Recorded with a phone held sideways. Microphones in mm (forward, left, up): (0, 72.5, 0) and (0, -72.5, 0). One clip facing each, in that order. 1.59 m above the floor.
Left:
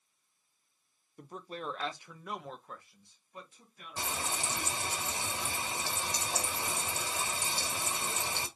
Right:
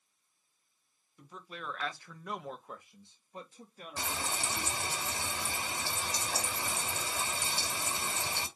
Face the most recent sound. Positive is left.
turn(degrees=20)  # may be behind; listen again after turning